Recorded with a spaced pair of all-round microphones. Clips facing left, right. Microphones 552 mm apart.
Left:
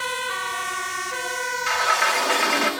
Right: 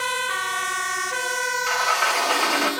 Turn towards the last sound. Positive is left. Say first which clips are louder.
# even
turn(degrees=45)  # may be behind; listen again after turning